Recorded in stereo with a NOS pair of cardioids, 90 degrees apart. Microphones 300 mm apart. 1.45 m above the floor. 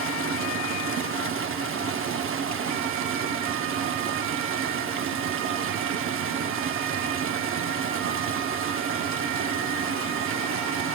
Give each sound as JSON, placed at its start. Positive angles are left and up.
{"t": 0.0, "sound": "running water", "azimuth_deg": -45, "distance_m": 0.8}